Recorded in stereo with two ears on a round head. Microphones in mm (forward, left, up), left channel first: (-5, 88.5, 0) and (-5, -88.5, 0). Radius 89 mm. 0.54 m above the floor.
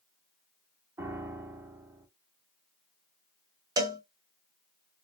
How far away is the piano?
About 0.7 m.